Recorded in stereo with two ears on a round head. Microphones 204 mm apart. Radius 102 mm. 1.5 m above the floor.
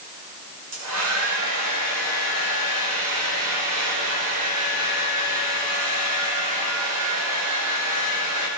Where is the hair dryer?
80° right, 7.5 m.